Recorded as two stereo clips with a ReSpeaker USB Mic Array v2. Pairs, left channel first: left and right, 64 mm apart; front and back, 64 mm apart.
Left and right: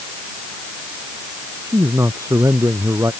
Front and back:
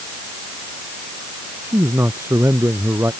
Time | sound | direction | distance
1.6 | a man speaking | 130° right | ?